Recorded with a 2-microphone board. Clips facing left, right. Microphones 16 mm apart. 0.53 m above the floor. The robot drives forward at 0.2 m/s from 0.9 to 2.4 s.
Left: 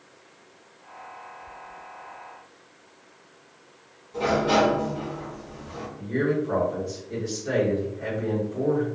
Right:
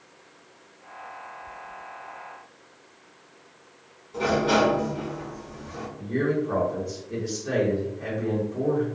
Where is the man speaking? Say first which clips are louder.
Even; 5° right (ahead or behind), 1.3 m.